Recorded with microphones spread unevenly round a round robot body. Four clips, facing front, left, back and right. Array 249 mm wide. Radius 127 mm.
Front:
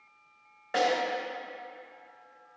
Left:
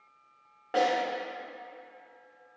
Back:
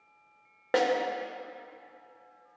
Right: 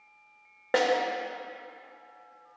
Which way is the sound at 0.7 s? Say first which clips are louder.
Right 1 dB, back 1 dB; 135° right.